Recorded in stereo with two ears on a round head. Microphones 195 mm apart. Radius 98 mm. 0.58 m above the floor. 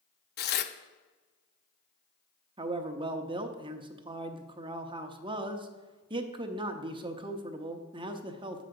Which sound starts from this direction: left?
Tearing paper, at 0.4 s.